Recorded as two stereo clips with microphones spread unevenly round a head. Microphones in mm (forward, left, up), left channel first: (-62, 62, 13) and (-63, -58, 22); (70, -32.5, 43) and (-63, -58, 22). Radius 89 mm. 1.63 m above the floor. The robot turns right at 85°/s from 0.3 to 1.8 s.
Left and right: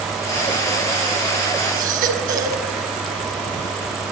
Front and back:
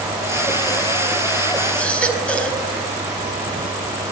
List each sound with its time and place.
1.8 s a baby crying: 75° right, 5 m; by 2.6 s 70° right, 5 m